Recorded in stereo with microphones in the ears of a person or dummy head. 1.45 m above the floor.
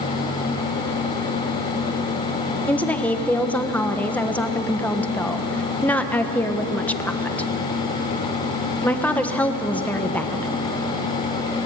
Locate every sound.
2.7 s a woman speaking: 5° left (ahead or behind), 1.5 m